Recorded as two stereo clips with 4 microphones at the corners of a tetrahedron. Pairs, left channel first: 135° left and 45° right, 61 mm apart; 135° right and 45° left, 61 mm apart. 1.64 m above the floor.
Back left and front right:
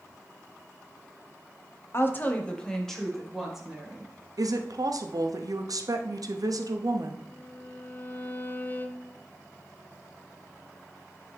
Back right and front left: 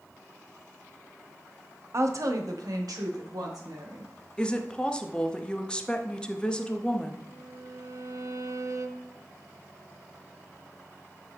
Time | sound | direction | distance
1.9 | a woman speaking | 90° left | 0.8 m
4.4 | a woman speaking | 60° right | 0.7 m
7.3 | a violin | 75° left | 0.6 m